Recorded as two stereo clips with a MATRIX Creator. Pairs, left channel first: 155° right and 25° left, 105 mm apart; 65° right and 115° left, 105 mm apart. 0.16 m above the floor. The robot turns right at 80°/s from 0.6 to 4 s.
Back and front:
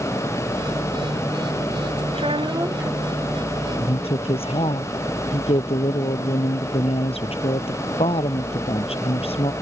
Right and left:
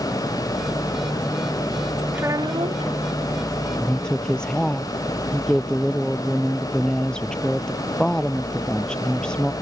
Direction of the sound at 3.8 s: 165° right.